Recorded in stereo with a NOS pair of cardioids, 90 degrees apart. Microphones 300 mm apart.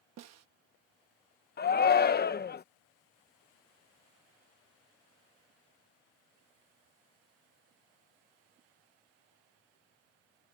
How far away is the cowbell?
No cowbell in this recording.